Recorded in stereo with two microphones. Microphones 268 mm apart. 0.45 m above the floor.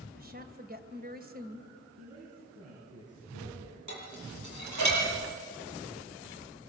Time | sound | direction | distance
0.2 | a woman speaking | 30° right (ahead or behind) | 2 m
2.0 | a man speaking | 55° right (ahead or behind) | 8.5 m
3.9 | dishes clattering | 80° right | 8.5 m